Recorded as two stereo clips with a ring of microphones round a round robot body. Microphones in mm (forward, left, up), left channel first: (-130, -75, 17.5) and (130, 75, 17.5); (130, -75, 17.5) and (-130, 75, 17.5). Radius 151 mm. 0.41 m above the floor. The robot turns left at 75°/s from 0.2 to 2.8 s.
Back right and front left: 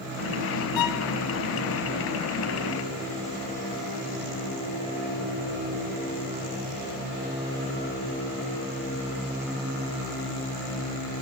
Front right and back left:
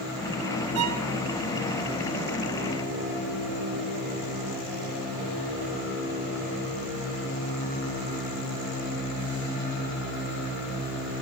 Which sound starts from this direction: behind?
A violin, at 0.8 s.